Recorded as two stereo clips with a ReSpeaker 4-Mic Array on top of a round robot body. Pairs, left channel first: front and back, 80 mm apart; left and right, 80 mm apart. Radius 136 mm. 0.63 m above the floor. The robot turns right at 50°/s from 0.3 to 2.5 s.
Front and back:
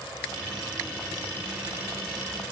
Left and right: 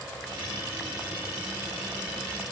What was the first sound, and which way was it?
Only background noise.